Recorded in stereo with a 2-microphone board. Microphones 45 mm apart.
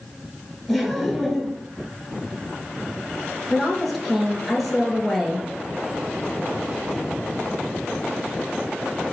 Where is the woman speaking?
Centre (ahead or behind), 1.3 m.